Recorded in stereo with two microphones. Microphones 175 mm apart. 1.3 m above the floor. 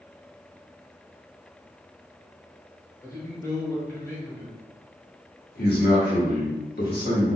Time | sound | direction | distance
3.0 | a man speaking | 15° left (ahead or behind) | 0.9 m
5.5 | a man speaking | 65° left (ahead or behind) | 1.2 m